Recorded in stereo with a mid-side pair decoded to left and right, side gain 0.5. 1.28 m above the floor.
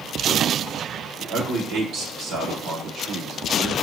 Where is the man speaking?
65° right, 2 m.